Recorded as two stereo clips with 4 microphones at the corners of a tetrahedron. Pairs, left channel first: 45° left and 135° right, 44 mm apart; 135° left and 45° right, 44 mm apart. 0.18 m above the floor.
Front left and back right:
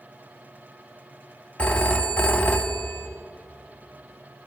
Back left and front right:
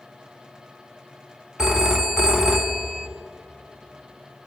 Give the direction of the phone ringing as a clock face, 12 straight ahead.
11 o'clock.